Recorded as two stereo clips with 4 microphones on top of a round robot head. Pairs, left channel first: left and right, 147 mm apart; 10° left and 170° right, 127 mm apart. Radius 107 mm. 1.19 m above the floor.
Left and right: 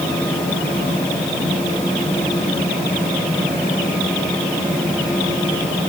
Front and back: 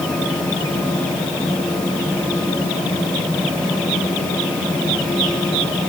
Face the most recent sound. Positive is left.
No sound to turn to.